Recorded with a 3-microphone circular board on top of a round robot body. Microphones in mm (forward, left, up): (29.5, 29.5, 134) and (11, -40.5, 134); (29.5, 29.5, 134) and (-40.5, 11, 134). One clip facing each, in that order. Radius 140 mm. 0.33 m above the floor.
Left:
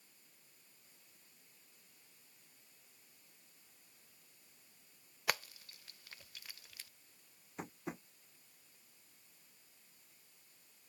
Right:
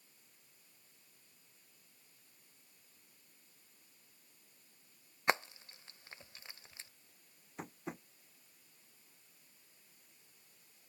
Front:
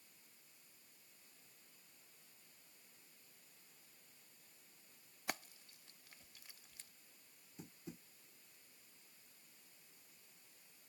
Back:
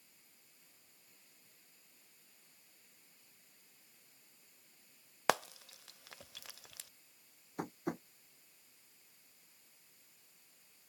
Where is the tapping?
165° left.